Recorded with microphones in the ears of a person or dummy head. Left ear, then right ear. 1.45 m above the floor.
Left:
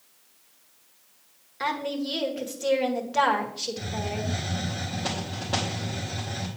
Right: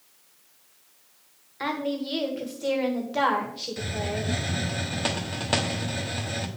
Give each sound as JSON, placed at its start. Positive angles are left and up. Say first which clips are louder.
{"t": 1.6, "sound": "a woman speaking", "louder": "left 1 dB", "side_deg": 5, "distance_m": 1.5}
{"t": 3.8, "sound": "a hiss", "louder": "right 1 dB", "side_deg": -40, "distance_m": 1.1}